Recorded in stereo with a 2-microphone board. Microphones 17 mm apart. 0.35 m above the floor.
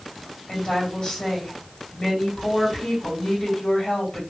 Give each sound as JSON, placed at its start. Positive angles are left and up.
{"t": 0.5, "sound": "a woman speaking", "side_deg": 55, "distance_m": 2.5}